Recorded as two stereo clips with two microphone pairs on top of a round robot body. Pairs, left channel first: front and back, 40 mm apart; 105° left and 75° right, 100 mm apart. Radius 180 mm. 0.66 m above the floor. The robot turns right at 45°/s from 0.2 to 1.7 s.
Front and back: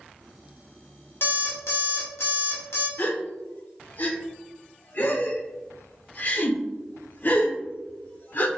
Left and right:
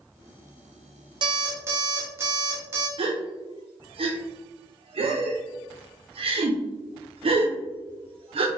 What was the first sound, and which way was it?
An alarm clock, 30° right.